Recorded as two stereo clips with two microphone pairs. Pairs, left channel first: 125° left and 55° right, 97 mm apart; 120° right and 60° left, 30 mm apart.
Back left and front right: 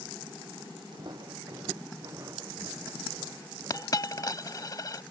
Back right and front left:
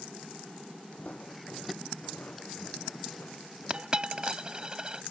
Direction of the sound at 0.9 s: 80° right.